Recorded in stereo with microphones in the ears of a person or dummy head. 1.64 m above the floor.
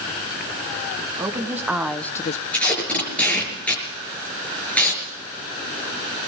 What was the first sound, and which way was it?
A woman speaking, 15° right (ahead or behind).